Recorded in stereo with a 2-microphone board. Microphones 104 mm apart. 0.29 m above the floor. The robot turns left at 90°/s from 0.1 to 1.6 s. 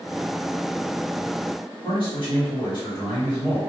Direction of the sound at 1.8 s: 45° left (ahead or behind).